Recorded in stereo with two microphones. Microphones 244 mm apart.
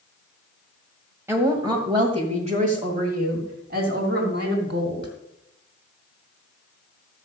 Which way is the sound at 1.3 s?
10° right (ahead or behind).